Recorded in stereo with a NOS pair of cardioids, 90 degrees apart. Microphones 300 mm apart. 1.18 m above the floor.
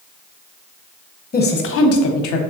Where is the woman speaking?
30° left, 0.8 m; by 2.4 s 80° left, 0.7 m.